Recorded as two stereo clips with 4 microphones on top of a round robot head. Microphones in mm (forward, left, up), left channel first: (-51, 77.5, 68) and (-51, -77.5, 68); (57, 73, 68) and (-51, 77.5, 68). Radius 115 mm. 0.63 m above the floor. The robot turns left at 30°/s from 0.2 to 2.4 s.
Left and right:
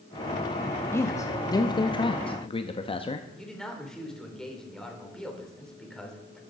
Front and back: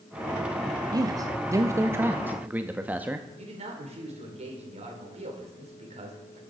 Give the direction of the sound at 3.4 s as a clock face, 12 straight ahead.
6 o'clock.